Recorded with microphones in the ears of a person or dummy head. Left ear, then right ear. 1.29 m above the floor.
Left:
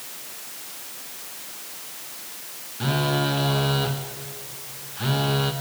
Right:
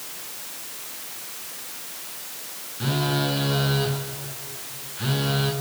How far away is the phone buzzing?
About 1.0 m.